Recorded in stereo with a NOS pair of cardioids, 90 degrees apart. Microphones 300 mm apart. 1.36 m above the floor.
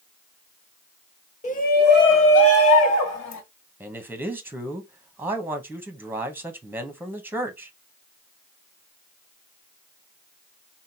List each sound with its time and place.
1.4 s a shout: 25° left, 1.3 m; by 3.4 s 75° left, 1.3 m
3.8 s a man speaking: 5° right, 0.9 m